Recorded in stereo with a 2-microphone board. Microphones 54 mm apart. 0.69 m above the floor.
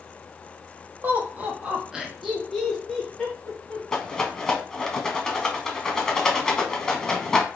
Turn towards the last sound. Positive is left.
turn(degrees=10)  # may be behind; listen again after turning